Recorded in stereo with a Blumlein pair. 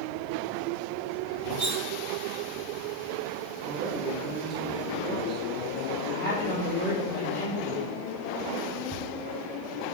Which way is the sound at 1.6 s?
55° right.